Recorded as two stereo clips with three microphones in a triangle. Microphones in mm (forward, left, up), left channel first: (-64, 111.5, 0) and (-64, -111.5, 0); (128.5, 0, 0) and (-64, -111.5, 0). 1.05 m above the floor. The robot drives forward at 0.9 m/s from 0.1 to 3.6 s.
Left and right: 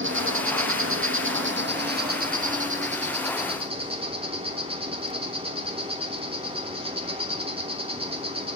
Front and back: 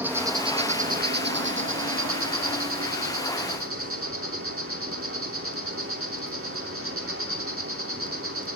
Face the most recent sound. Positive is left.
turn(degrees=-155)